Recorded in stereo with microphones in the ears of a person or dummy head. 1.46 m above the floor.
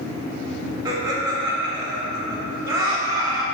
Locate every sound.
0.8 s laughter: 10° right (ahead or behind), 1.6 m